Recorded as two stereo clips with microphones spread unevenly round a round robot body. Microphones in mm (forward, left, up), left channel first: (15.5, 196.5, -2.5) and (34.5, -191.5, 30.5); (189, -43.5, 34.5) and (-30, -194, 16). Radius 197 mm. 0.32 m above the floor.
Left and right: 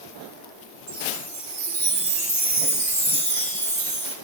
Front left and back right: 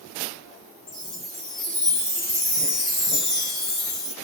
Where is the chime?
15° right, 3 m.